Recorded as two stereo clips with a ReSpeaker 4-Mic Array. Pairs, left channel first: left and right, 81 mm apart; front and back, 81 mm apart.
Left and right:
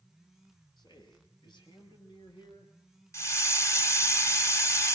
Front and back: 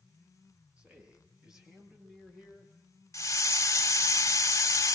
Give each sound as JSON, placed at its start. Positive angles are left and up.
{"t": 0.8, "sound": "a man speaking", "azimuth_deg": 105, "distance_m": 7.0}
{"t": 3.1, "sound": "a hiss", "azimuth_deg": 45, "distance_m": 1.1}